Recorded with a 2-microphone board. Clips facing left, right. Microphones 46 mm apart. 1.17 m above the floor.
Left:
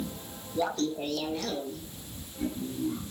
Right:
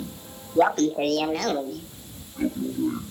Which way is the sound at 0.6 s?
50° right (ahead or behind).